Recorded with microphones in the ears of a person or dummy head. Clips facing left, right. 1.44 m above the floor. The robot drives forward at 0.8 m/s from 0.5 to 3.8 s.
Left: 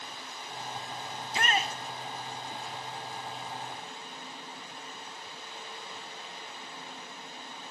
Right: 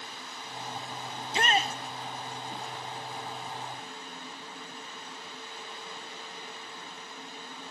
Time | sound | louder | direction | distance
0.0 | running water | even | 40° left (ahead or behind) | 4 m
1.2 | a shout | right 3 dB | 20° right (ahead or behind) | 1.0 m